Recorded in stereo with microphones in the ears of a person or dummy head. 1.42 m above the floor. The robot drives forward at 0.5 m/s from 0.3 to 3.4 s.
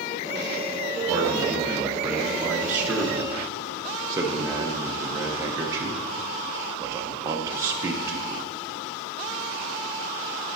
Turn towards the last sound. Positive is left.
turn(degrees=-15)  # may be behind; listen again after turning